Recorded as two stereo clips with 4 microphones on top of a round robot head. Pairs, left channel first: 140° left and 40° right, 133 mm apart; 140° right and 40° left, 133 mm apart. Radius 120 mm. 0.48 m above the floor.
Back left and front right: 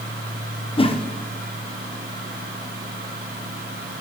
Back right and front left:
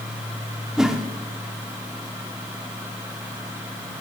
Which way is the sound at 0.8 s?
125° left.